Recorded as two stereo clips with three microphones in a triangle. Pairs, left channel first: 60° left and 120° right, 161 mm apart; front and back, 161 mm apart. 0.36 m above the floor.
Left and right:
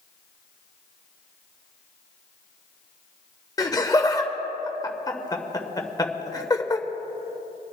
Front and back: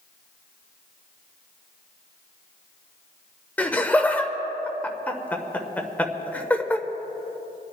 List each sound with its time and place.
3.6 s laughter: 65° left, 1.0 m